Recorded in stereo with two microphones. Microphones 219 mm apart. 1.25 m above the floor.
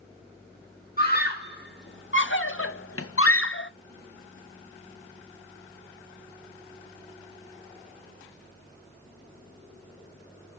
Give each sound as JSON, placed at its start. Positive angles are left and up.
{"t": 1.0, "sound": "a scream", "side_deg": 45, "distance_m": 1.4}